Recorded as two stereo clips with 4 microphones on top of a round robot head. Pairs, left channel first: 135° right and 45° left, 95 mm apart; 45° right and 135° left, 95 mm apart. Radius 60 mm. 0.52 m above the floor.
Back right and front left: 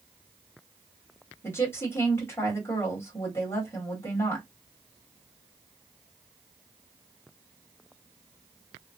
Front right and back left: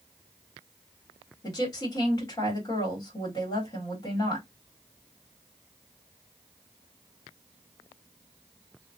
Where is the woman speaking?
85° right, 1.6 m.